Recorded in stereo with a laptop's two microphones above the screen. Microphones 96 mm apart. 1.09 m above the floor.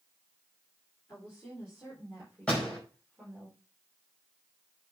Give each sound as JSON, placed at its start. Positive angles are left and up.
{"t": 1.1, "sound": "a woman speaking", "side_deg": 20, "distance_m": 4.0}
{"t": 2.5, "sound": "a door slam", "side_deg": 10, "distance_m": 5.0}